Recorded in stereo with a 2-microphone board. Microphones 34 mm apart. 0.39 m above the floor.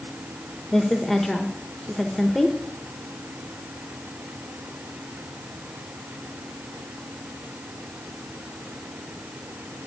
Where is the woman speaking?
10° left (ahead or behind), 1.0 m.